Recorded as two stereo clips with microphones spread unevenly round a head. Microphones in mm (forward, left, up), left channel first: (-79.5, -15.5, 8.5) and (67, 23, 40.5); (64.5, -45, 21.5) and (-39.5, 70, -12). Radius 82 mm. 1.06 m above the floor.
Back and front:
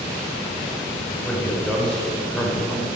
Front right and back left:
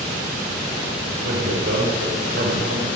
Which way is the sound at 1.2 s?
110° left.